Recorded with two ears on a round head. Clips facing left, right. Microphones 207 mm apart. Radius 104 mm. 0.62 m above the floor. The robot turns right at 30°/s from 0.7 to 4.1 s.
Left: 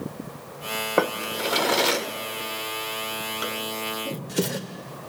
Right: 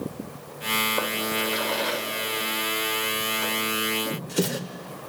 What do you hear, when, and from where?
1.0 s a drawer: 80° left, 1.1 m; by 4.6 s centre (ahead or behind), 1.1 m